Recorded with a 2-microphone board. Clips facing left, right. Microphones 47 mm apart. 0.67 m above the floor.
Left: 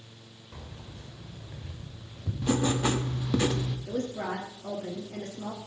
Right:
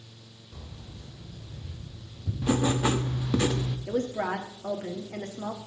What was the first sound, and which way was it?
Keys jangling, 55° left (ahead or behind).